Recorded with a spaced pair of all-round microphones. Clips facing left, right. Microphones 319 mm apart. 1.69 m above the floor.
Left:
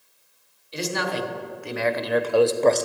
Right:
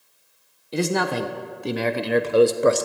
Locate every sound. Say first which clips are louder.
0.7 s a man speaking: right 5 dB; 70° right (ahead or behind), 1.3 m; by 2.9 s 10° right (ahead or behind), 0.9 m